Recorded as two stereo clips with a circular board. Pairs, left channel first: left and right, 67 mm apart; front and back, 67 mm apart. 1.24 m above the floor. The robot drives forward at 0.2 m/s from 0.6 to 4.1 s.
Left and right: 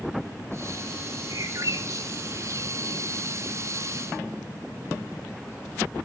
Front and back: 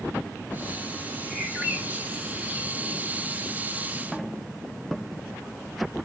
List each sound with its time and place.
1.3 s a bird: 110° right, 2.5 m; by 3.0 s 120° right, 2.5 m